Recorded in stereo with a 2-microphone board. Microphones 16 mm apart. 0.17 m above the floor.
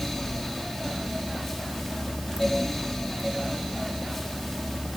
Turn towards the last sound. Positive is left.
No sound to turn to.